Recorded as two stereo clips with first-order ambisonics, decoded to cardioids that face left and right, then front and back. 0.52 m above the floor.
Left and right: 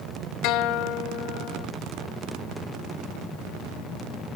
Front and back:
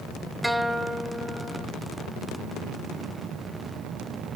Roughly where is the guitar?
Left.